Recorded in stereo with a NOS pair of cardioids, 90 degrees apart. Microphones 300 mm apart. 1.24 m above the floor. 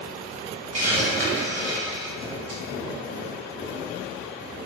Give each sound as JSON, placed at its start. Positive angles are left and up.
{"t": 0.7, "sound": "a hiss", "azimuth_deg": -55, "distance_m": 1.5}